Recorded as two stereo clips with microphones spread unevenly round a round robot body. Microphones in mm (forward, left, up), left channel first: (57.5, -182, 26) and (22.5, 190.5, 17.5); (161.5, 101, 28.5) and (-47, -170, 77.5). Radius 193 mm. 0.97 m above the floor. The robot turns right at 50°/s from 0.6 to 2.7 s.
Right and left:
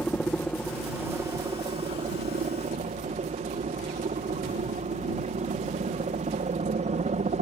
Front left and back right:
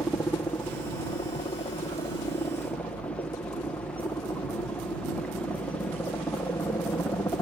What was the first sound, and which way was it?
A helicopter, straight ahead.